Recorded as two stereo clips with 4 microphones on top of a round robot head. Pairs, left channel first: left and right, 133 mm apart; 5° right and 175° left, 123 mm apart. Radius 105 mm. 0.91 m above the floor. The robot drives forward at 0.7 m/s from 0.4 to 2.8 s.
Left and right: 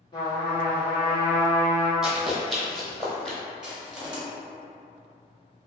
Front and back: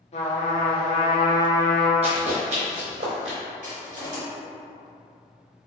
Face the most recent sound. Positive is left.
turn(degrees=-175)